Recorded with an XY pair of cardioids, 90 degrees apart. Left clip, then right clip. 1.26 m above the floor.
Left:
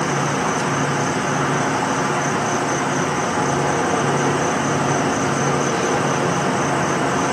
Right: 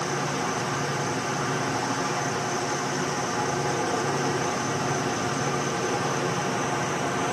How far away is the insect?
About 0.9 m.